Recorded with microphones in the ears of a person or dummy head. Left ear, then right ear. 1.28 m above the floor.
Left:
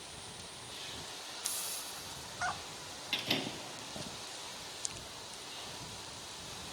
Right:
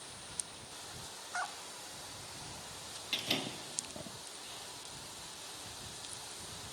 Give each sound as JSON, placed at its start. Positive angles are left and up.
{"t": 1.4, "sound": "a hiss", "side_deg": 75}
{"t": 3.1, "sound": "a door slam", "side_deg": -5}